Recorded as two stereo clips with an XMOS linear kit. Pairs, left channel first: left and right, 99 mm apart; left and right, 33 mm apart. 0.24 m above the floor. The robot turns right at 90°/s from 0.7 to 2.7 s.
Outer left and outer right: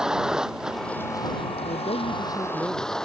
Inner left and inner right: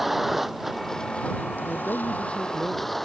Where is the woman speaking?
80° left; by 3.0 s straight behind.